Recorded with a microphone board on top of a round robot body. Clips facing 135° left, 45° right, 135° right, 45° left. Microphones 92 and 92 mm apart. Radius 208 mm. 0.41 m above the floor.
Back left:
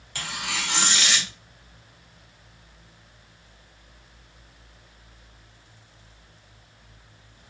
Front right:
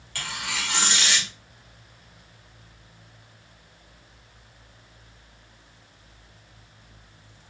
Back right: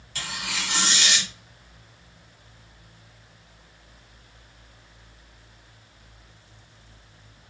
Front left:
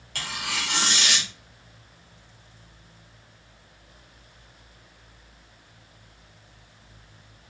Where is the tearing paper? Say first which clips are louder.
Back left 1 dB, front left 1 dB; 65° left, 2 m.